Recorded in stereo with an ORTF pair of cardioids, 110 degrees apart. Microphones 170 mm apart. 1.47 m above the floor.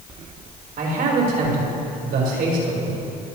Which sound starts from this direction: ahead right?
A man speaking, at 0.8 s.